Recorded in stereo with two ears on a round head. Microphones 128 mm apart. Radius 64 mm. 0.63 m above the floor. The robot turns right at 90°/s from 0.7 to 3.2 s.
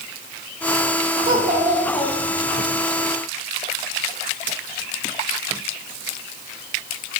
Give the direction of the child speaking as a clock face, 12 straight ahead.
2 o'clock.